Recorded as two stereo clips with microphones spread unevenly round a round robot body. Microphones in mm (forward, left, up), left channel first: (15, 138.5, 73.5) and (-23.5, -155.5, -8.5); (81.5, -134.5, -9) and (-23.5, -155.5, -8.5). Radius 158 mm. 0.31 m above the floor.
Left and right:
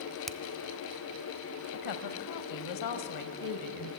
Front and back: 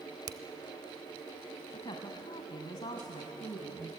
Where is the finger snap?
165° right, 0.9 m.